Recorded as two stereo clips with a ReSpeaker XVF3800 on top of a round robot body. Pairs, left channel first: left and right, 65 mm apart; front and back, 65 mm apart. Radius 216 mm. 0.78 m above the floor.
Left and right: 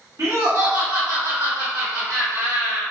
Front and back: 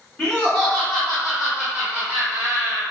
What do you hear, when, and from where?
0.2 s laughter: 70° right, 1.8 m; by 2.8 s 140° right, 1.4 m